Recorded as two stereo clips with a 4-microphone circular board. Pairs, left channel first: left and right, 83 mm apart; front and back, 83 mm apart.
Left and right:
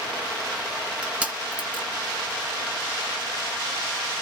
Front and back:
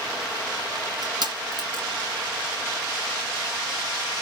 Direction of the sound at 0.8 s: 160° right.